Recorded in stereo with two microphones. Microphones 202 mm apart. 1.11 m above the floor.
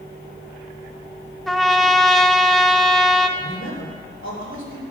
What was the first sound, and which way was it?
A trumpet, centre (ahead or behind).